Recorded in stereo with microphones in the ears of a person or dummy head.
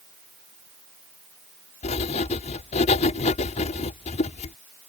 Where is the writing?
40° left (ahead or behind).